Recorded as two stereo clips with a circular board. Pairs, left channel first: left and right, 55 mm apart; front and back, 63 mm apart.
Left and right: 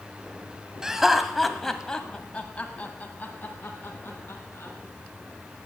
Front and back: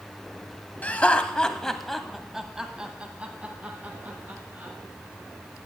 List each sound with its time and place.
0.8 s laughter: 25° right, 1.0 m; by 4.7 s 130° left, 1.8 m